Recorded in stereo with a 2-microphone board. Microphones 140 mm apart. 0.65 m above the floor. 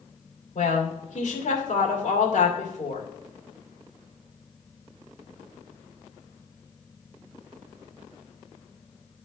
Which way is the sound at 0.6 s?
65° left (ahead or behind).